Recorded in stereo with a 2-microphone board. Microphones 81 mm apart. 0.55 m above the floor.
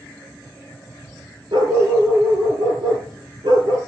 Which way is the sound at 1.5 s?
85° right.